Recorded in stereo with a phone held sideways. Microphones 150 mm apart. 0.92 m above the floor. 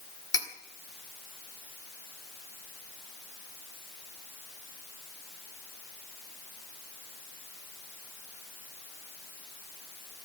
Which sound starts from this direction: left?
Cutlery clinking, at 0.3 s.